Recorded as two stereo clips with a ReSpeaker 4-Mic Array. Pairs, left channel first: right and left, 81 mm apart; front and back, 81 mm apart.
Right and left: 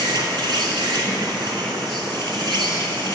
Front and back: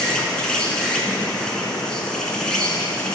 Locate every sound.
0.0 s an insect: 80° left, 0.8 m